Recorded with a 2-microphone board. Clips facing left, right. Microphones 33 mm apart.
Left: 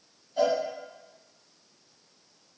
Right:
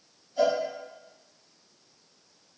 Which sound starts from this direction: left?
A cowbell, at 0.4 s.